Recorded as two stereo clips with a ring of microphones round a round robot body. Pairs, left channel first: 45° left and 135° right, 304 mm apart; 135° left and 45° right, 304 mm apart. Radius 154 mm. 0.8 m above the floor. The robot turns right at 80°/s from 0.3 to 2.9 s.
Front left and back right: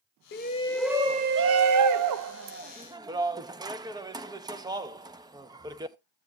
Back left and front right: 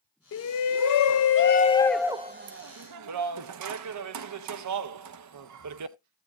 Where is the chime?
I don't hear a chime.